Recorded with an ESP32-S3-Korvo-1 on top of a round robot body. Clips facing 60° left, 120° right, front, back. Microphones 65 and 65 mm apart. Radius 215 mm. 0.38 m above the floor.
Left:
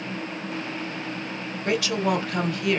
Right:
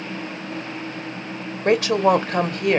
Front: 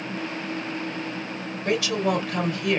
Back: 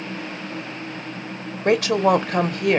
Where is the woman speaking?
160° right, 1.5 m.